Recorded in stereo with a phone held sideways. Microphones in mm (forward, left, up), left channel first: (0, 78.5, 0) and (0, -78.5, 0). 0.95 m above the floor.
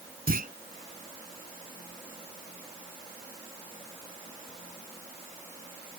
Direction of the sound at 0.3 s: 80° right.